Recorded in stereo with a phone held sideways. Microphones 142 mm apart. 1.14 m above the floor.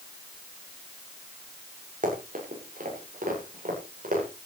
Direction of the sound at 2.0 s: 65° right (ahead or behind).